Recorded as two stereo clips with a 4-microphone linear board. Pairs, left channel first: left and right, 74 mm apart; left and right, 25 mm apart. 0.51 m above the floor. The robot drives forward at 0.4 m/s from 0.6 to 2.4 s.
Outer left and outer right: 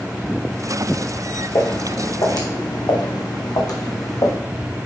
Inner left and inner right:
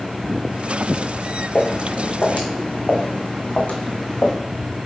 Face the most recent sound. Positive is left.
turn(degrees=45)  # may be behind; listen again after turning